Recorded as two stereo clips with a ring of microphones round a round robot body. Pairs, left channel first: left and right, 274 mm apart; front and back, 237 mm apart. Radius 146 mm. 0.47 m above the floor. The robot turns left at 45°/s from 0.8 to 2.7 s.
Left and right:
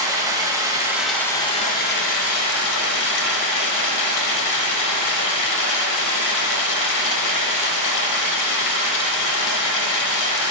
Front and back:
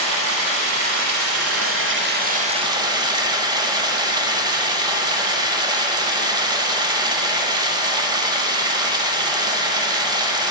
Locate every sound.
0.0 s running water: 170° right, 0.8 m; by 10.5 s 105° left, 0.8 m